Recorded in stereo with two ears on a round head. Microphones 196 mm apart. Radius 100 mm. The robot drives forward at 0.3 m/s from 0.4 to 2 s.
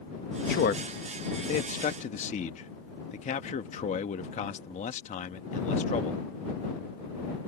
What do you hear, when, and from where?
0.5 s a man speaking: 45° left (ahead or behind); by 6.2 s 35° left (ahead or behind)